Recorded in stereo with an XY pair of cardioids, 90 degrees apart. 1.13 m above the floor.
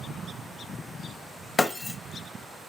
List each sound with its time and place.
1.6 s breaking glass: 30° left, 0.5 m